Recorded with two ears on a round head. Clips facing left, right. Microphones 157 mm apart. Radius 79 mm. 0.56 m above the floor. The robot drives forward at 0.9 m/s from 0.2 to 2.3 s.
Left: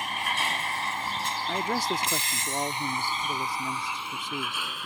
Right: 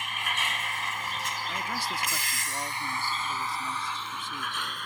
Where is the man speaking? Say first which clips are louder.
Left 8 dB; 35° left (ahead or behind).